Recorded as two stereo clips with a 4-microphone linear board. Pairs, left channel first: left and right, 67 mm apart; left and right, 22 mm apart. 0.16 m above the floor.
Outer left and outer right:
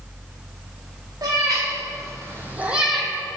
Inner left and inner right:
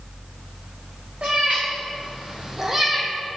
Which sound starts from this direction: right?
A cat meowing, at 1.2 s.